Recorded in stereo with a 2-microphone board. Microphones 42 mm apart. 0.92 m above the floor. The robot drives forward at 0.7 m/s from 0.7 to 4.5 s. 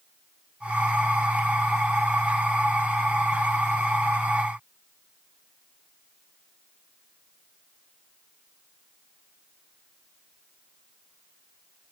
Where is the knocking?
No knocking in this recording.